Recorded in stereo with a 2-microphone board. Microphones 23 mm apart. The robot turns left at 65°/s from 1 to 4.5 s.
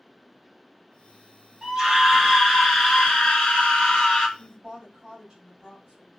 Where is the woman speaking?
40° right (ahead or behind), 1.9 m.